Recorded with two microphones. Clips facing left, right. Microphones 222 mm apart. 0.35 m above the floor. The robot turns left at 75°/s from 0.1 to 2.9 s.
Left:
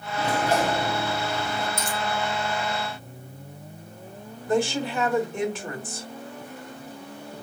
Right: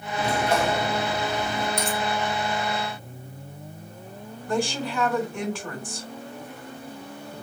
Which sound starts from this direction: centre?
A dropped coin, at 1.8 s.